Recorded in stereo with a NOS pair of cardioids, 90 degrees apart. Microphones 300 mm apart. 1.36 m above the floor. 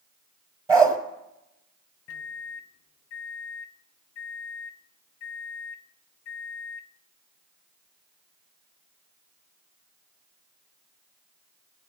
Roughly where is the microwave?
Ahead left.